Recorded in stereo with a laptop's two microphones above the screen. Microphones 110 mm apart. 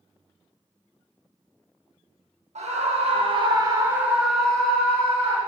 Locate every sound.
2.5 s a scream: 75° right (ahead or behind), 0.9 m; by 5.4 s 20° left (ahead or behind), 1.4 m